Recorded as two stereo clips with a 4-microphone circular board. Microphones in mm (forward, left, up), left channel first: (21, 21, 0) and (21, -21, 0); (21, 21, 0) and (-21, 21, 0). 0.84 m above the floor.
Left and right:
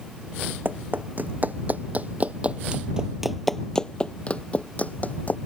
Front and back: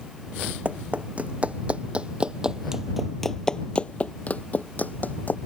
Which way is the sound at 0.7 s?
130° right.